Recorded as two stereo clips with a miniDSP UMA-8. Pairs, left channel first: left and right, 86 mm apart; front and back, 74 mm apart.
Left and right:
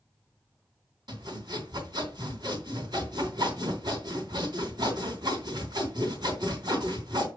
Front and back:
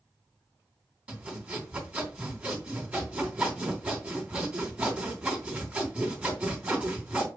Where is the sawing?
110° right, 3 m.